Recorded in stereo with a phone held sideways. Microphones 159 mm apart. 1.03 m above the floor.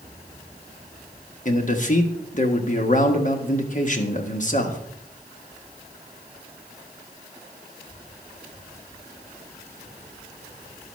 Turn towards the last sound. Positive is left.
turn(degrees=50)  # may be behind; listen again after turning